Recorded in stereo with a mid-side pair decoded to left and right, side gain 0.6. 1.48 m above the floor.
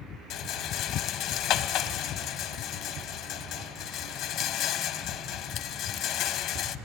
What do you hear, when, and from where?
0.3 s a rattle: 65° left, 1.0 m